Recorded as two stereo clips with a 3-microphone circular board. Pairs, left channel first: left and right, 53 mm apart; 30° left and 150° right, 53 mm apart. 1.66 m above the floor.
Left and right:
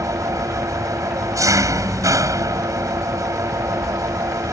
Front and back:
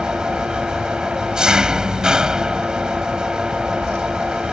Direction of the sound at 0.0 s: 70° right.